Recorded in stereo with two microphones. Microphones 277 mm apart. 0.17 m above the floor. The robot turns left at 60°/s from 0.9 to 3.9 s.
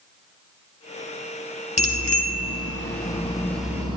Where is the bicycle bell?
110° left, 2.5 m; by 4.0 s 20° right, 2.5 m.